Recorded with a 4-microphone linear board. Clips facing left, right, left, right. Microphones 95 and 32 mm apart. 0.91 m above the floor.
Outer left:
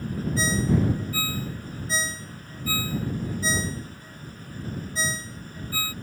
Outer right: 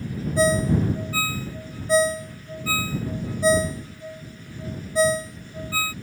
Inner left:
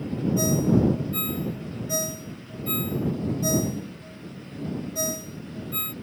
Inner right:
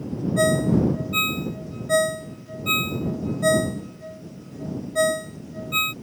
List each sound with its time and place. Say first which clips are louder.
0.4 s a ringtone: outer right 5 dB, inner right 3 dB; 65° right (ahead or behind)